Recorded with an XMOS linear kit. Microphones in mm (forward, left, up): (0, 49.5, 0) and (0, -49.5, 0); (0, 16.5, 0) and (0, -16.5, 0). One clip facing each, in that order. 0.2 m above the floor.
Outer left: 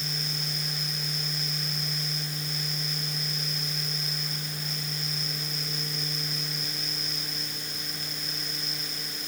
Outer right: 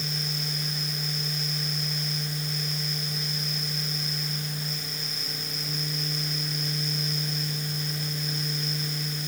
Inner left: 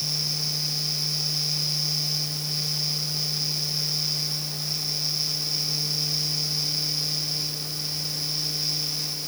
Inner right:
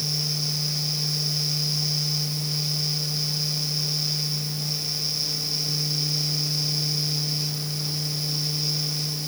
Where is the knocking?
No knocking in this recording.